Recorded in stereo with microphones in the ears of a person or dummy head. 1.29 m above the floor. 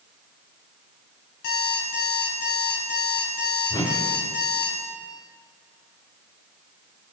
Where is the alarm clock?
75° left (ahead or behind), 4.5 m.